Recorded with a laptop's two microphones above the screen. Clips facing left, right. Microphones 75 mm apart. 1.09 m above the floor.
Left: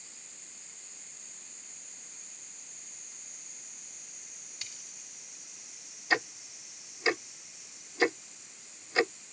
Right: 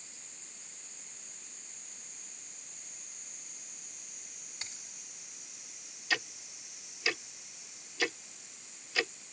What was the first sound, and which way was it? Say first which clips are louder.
A dropped coin: right 2 dB; 30° right (ahead or behind).